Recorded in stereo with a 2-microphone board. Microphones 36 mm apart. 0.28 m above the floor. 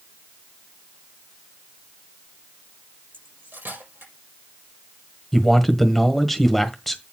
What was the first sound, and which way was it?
Cutlery clinking, 85° right.